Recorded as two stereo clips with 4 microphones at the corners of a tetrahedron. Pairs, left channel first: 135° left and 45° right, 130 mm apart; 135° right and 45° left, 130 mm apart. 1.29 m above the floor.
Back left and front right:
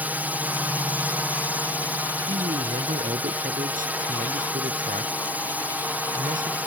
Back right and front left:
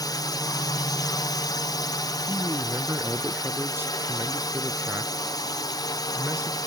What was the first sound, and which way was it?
A drone, 110° right.